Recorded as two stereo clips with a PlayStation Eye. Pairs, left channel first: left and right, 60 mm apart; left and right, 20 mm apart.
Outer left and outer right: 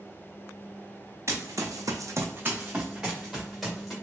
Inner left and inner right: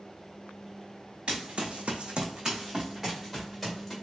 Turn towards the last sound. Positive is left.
turn(degrees=0)  # may be behind; listen again after turning